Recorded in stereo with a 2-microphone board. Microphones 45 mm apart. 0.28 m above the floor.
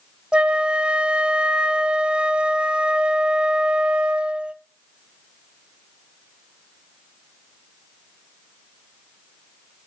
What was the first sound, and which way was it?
A flute, 20° right (ahead or behind).